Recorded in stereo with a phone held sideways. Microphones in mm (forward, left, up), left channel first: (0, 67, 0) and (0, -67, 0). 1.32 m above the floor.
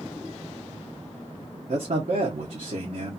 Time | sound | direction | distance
1.7 | a man speaking | 65° right (ahead or behind) | 0.7 m